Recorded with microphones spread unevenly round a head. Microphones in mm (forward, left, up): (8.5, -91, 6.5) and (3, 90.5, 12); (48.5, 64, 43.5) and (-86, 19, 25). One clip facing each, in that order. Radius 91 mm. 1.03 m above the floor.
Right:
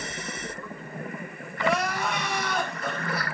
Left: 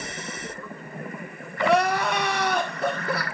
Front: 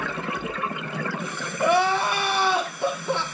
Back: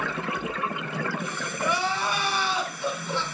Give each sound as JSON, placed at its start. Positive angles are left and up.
{"t": 1.6, "sound": "crying", "azimuth_deg": 55, "distance_m": 1.8}